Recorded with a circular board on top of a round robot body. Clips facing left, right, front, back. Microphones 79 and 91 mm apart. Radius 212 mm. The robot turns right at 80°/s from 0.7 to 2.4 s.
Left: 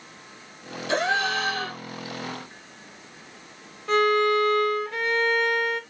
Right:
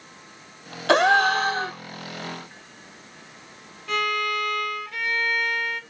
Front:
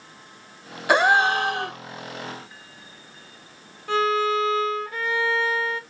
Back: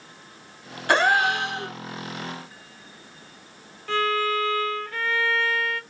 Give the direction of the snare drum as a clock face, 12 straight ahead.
I don't hear a snare drum.